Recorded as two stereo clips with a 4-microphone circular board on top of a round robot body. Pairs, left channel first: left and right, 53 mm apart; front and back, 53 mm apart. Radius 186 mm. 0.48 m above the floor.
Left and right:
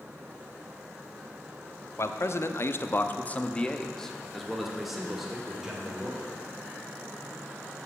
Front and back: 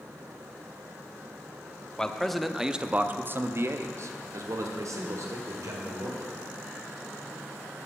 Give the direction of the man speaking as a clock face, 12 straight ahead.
10 o'clock.